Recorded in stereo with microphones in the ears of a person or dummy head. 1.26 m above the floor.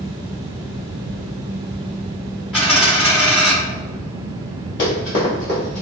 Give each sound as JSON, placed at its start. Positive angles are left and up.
{"t": 2.5, "sound": "a dropped coin", "side_deg": 0, "distance_m": 1.7}
{"t": 4.8, "sound": "running footsteps", "side_deg": 20, "distance_m": 1.3}